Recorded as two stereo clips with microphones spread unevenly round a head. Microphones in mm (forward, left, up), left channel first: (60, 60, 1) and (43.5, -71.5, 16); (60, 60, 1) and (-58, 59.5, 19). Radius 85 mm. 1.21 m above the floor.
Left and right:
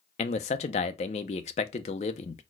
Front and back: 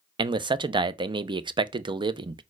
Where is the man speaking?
125° left, 0.5 m.